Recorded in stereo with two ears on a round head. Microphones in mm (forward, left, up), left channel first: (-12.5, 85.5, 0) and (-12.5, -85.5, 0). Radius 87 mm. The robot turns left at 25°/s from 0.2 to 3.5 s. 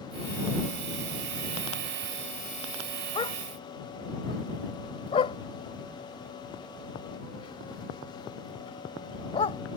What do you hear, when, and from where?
3.1 s a dog barking: 25° left (ahead or behind); by 9.6 s 30° left (ahead or behind)